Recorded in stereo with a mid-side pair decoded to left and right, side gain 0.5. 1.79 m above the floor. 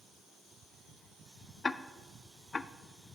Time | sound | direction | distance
1.6 | ticking | 25° left | 0.5 m